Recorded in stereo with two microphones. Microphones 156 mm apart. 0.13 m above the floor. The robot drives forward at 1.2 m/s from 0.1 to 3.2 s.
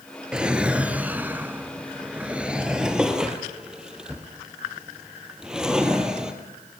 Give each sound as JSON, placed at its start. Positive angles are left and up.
{"t": 0.3, "sound": "a drawer", "side_deg": -5, "distance_m": 1.6}